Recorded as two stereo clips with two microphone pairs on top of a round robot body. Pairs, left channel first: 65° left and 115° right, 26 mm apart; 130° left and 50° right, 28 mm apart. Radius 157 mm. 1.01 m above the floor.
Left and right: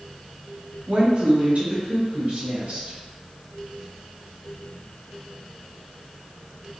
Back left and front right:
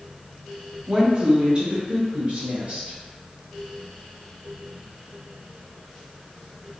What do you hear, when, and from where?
0.9 s a woman speaking: 90° right, 0.7 m; by 3.0 s 95° right, 1.8 m